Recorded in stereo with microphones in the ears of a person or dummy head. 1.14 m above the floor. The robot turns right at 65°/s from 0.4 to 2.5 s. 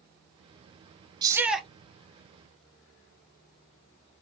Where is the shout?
25° right, 0.6 m; by 1.7 s 5° left, 0.6 m.